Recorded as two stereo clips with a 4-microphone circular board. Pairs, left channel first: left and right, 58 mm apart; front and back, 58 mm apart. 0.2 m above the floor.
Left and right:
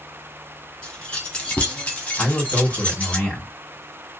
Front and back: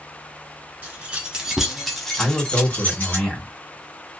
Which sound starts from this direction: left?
A man speaking, at 2.2 s.